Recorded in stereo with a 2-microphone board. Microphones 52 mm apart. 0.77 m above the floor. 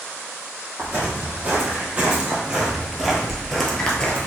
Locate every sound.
0.8 s footsteps: 30° right (ahead or behind), 2.0 m; by 4.3 s 25° left (ahead or behind), 0.9 m